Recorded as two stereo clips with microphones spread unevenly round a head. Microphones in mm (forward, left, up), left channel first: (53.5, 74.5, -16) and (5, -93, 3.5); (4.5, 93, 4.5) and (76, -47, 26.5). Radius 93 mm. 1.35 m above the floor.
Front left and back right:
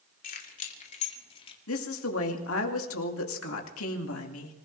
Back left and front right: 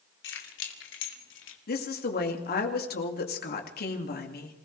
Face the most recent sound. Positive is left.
turn(degrees=95)